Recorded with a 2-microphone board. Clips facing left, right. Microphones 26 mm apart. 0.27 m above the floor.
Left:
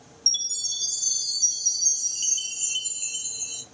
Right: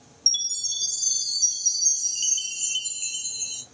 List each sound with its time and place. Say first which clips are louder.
0.3 s a chime: right 1 dB; 10° right (ahead or behind), 2 m